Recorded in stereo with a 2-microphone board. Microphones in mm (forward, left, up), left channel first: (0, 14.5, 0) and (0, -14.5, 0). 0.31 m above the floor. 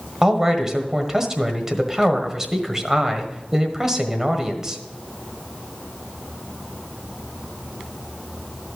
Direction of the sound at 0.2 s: 20° right (ahead or behind).